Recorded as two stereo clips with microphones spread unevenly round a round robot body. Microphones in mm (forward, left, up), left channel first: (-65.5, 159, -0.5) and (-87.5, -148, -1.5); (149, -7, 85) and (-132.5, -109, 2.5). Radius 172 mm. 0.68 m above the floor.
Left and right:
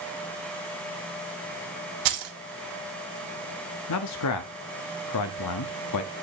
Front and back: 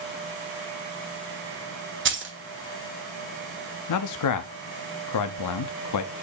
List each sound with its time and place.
2.0 s keys jangling: 110° right, 1.3 m
3.9 s a man speaking: 55° left, 0.8 m